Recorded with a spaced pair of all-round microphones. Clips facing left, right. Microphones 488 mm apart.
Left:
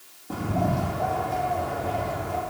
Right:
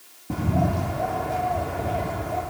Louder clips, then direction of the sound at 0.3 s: Right 2 dB; 40° right (ahead or behind).